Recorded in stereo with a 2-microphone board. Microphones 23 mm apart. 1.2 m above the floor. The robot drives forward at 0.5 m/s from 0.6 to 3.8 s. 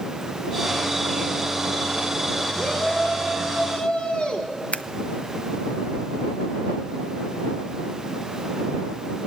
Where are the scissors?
75° left (ahead or behind), 0.6 m.